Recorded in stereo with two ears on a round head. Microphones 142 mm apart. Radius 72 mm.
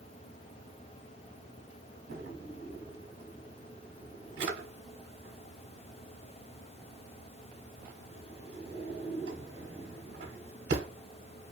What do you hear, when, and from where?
2.1 s a drawer: 85° right, 1.0 m